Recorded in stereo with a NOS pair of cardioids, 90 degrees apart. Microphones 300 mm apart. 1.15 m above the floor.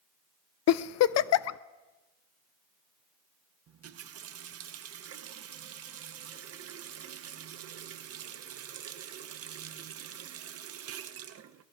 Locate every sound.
0.7 s a giggle: 65° left, 0.5 m
3.7 s a running tap: 55° right, 0.9 m